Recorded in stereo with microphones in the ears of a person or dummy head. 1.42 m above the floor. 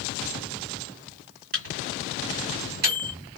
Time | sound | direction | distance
1.5 | a microwave | 50° right (ahead or behind) | 1.8 m